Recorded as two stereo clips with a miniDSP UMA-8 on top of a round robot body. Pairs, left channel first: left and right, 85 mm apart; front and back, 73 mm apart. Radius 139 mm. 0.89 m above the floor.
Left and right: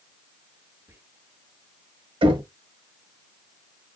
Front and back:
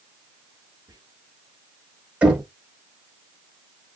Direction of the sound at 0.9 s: 150° right.